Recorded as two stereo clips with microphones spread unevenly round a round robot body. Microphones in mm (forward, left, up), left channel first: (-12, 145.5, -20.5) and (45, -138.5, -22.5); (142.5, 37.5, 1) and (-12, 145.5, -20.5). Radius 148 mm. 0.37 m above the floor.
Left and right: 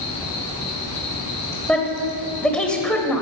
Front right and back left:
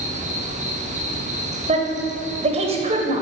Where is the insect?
95° left, 2.5 m.